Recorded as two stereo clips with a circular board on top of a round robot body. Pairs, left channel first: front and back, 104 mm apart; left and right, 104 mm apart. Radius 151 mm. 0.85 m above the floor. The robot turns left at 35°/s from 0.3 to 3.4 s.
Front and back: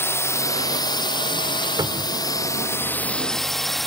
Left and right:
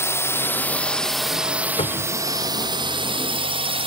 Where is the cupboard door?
125° left; by 2.2 s 110° left.